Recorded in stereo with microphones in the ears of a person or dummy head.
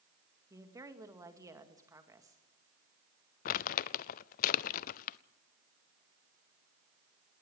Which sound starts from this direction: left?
Crumpling, at 3.5 s.